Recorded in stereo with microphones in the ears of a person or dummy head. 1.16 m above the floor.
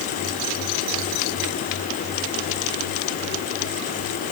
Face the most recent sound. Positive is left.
No sound to turn to.